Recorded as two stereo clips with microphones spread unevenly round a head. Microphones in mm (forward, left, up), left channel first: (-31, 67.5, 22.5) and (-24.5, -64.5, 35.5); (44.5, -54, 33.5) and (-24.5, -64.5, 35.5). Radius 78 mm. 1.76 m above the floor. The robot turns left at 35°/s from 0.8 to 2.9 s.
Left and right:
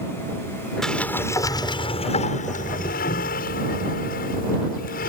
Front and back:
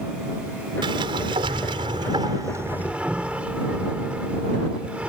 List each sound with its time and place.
0.8 s a sliding door: straight behind; by 5.1 s 110° left